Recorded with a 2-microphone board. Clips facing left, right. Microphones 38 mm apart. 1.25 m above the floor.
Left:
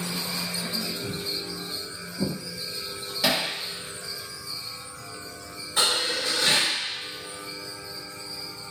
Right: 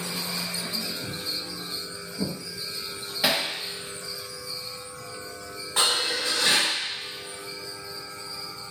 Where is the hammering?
20° right (ahead or behind), 0.7 m.